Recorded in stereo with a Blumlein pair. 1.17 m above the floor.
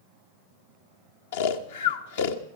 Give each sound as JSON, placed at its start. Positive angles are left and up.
{"t": 1.3, "sound": "snoring", "azimuth_deg": 55, "distance_m": 1.1}